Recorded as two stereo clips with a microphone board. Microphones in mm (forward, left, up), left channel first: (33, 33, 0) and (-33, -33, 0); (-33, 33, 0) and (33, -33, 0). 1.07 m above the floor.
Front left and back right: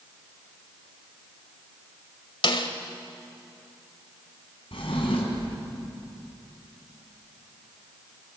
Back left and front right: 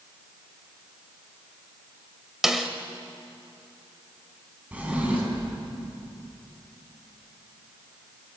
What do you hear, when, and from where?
2.4 s a snare drum: 40° left, 1.6 m
4.7 s a drawer: 30° left, 4.5 m